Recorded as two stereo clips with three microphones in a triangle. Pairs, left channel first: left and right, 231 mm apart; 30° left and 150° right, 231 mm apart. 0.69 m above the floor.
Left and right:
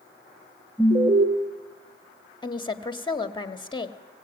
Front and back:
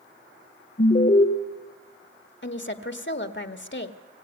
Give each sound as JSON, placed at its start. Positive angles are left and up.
{"t": 0.8, "sound": "an alarm", "azimuth_deg": -25, "distance_m": 1.7}
{"t": 2.4, "sound": "a woman speaking", "azimuth_deg": 25, "distance_m": 1.4}